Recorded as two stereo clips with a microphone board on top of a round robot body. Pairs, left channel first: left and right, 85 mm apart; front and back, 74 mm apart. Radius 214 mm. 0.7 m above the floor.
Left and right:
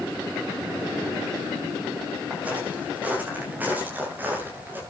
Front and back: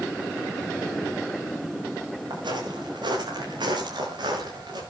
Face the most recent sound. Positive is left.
turn(degrees=-160)